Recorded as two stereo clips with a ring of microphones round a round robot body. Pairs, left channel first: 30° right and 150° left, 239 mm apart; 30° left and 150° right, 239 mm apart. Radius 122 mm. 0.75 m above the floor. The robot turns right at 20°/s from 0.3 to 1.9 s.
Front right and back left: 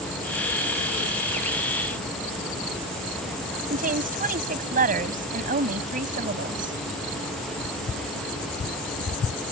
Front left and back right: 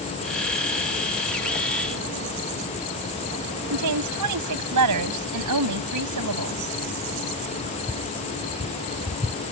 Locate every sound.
3.7 s a woman speaking: 150° right